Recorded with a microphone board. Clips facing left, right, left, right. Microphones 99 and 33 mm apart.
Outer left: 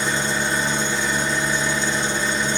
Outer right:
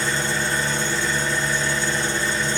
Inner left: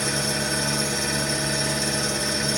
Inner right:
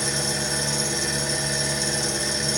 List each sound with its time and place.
0.0 s an engine running: 25° left (ahead or behind), 1.4 m